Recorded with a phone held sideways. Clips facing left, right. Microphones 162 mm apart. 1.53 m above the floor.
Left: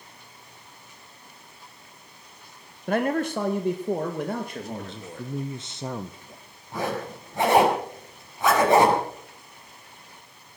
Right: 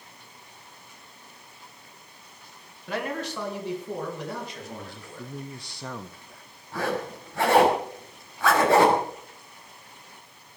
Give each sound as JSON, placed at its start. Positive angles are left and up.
{"t": 2.9, "sound": "a man speaking", "side_deg": 50, "distance_m": 1.4}
{"t": 4.7, "sound": "a man speaking", "side_deg": 20, "distance_m": 0.7}
{"t": 6.7, "sound": "a zipper", "side_deg": 20, "distance_m": 6.0}